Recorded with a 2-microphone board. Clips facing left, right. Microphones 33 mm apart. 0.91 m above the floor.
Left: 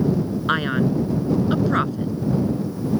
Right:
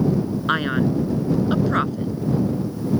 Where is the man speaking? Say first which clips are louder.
Even; centre (ahead or behind).